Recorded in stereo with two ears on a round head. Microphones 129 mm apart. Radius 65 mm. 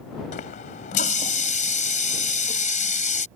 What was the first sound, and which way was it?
A running tap, 55° left (ahead or behind).